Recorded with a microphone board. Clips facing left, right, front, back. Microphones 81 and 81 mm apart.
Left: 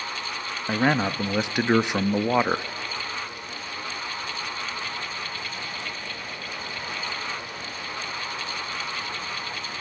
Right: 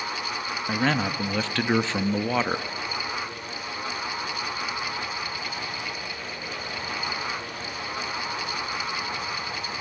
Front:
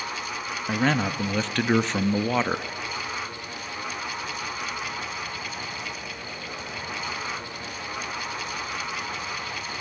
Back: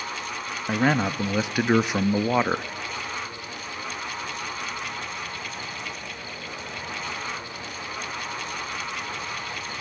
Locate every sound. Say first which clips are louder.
0.7 s a man speaking: left 3 dB, back 2 dB; 120° left, 0.6 m